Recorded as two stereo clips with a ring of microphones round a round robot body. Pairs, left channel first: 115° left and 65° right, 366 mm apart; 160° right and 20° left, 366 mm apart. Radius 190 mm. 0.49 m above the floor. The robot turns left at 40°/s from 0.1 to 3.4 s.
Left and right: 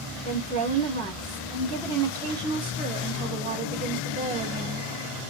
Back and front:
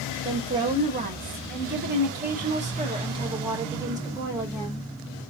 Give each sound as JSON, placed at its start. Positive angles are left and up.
{"t": 0.2, "sound": "a woman speaking", "azimuth_deg": 80, "distance_m": 1.2}